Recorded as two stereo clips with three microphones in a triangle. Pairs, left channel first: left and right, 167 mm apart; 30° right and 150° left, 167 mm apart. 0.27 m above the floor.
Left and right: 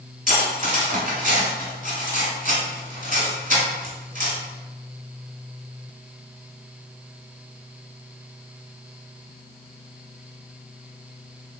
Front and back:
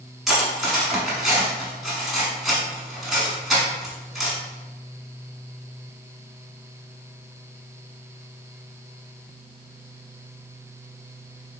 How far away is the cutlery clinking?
About 1.4 m.